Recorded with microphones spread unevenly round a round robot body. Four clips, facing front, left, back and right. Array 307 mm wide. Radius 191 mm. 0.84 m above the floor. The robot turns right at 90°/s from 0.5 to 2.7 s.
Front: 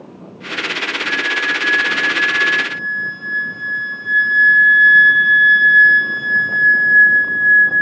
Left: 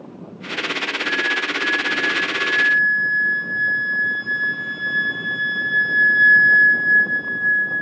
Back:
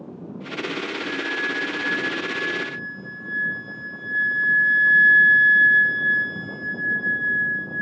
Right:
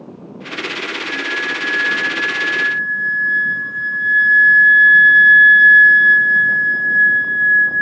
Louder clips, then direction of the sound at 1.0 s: Left 1 dB, front 9 dB; 155° left.